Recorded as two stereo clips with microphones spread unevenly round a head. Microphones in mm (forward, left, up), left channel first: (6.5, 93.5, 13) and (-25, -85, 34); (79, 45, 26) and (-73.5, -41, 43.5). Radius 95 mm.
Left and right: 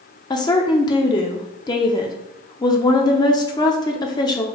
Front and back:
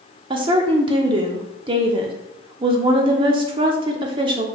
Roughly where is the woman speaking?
Behind left.